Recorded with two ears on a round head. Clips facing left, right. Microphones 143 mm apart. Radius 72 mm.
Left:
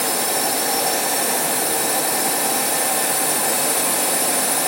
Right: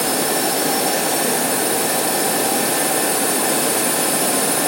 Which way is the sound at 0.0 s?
5° left (ahead or behind).